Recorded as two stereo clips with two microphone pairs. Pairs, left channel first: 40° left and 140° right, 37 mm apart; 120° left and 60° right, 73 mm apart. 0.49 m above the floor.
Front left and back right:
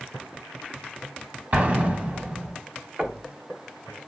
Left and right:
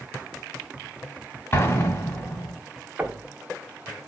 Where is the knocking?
120° right, 0.8 m.